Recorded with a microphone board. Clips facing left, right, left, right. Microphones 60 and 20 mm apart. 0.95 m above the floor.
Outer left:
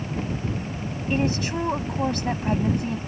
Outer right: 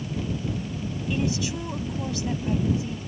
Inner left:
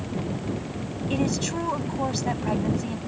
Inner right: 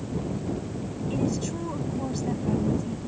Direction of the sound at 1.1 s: 45° left (ahead or behind).